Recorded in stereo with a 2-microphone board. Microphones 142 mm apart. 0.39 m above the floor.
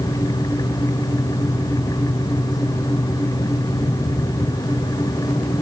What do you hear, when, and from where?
Only background noise.